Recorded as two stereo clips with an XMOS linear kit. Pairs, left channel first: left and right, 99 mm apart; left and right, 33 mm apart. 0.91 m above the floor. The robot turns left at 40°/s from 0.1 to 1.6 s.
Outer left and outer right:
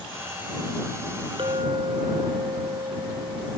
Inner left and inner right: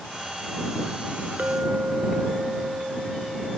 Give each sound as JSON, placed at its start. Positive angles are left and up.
{"t": 1.4, "sound": "a clink", "side_deg": -60}